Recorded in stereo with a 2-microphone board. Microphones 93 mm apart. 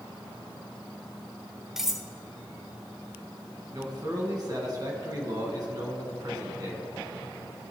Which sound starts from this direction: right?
A man speaking, at 3.7 s.